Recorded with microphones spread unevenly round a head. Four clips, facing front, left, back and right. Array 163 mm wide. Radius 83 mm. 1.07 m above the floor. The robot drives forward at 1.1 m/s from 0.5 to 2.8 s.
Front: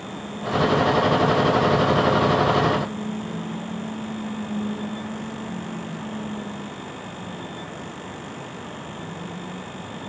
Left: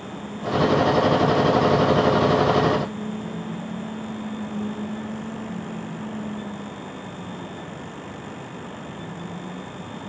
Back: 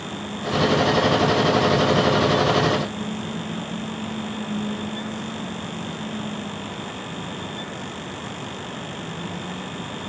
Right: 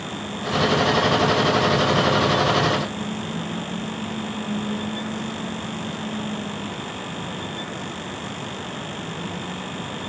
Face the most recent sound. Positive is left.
No sound to turn to.